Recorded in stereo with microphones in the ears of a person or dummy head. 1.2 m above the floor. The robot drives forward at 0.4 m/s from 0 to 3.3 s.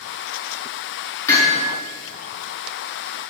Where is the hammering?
15° left (ahead or behind), 5.5 m.